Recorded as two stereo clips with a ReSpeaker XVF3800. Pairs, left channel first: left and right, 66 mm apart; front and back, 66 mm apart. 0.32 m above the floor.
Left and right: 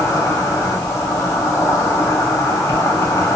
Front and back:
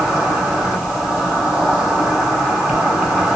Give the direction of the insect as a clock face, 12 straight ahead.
9 o'clock.